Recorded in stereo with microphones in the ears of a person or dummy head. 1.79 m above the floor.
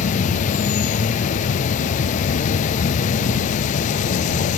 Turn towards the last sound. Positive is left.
turn(degrees=40)  # may be behind; listen again after turning